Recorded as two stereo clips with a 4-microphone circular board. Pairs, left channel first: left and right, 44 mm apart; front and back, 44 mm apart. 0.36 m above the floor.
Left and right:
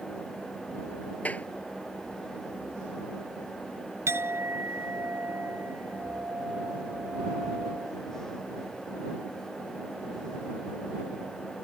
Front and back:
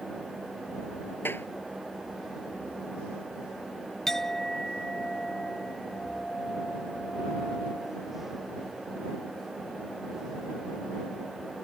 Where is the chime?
I don't hear a chime.